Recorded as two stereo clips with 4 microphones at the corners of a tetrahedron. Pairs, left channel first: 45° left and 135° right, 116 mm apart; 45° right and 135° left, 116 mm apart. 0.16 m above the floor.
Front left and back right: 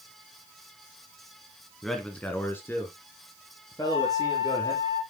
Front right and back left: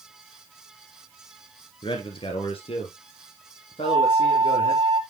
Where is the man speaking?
40° right, 1.4 m; by 4.8 s 10° right, 4.5 m.